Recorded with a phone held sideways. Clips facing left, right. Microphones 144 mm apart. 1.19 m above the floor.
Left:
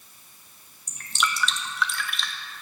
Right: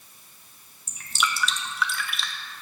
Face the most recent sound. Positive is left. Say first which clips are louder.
# even
turn(degrees=0)  # may be behind; listen again after turning